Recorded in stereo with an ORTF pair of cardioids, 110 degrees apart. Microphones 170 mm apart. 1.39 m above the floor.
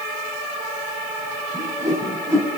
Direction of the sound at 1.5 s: 20° right.